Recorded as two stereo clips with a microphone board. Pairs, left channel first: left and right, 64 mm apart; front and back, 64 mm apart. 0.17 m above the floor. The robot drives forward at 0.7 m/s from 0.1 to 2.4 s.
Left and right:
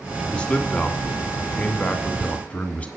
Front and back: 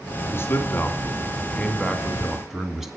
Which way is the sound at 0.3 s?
25° left.